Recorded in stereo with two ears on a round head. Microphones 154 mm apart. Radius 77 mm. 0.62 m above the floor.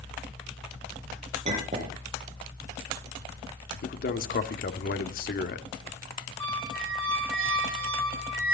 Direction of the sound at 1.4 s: 40° right (ahead or behind).